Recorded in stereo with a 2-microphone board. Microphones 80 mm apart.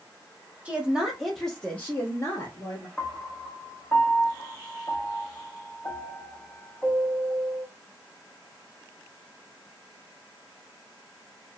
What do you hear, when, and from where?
0.7 s a woman speaking: 20° right (ahead or behind), 0.9 m; by 2.9 s 45° left (ahead or behind), 1.3 m
3.0 s a piano: 25° left (ahead or behind), 0.7 m